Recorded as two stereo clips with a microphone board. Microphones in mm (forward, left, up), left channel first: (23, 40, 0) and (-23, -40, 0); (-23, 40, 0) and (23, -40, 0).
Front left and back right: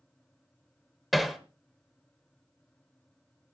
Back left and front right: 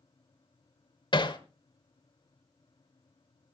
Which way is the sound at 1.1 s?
150° left.